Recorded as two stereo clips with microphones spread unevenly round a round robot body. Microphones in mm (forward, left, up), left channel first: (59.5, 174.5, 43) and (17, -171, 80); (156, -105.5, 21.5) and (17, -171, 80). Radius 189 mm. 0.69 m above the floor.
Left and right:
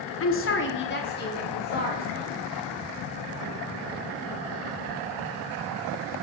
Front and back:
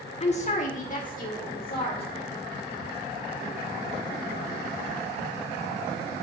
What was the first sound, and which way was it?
A woman speaking, 40° left.